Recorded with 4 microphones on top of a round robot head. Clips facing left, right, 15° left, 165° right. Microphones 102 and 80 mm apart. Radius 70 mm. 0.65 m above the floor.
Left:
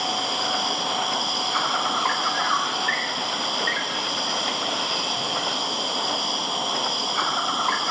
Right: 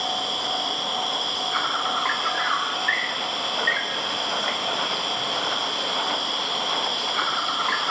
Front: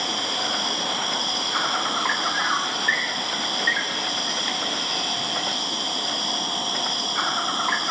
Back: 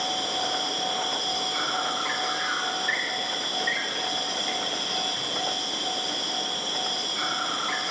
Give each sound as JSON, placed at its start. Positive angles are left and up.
{"t": 0.0, "sound": "an insect", "azimuth_deg": 35, "distance_m": 1.1}